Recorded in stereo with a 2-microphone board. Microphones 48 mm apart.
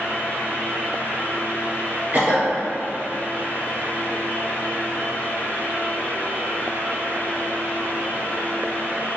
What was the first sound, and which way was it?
A cough, 30° right (ahead or behind).